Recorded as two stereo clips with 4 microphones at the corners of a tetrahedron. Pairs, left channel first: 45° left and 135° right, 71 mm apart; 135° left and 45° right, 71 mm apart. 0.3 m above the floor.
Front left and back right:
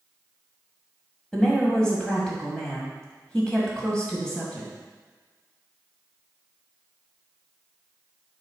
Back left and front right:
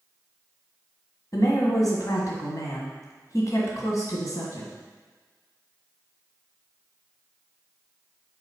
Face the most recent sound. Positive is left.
turn(degrees=120)